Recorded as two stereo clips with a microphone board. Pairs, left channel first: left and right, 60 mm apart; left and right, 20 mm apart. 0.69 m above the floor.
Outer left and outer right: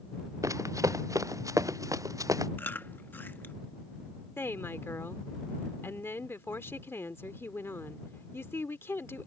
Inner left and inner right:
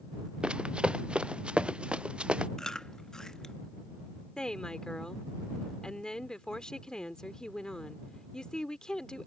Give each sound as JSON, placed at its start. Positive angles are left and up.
{"t": 0.4, "sound": "running footsteps", "side_deg": -60}
{"t": 2.6, "sound": "chewing", "side_deg": 35}
{"t": 4.4, "sound": "a woman speaking", "side_deg": 40}